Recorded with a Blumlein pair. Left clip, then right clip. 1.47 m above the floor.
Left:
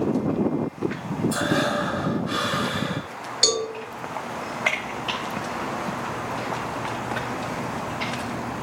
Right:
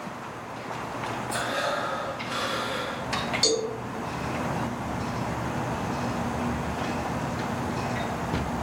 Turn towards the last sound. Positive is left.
turn(degrees=20)